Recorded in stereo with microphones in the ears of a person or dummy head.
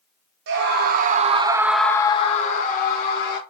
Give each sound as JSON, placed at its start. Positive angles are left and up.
{"t": 0.5, "sound": "a scream", "side_deg": -60, "distance_m": 0.9}